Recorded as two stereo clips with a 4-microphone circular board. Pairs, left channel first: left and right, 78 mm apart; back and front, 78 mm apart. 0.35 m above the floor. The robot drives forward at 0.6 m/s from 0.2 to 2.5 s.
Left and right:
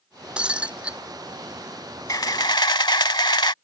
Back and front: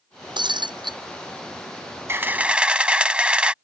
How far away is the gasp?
No gasp in this recording.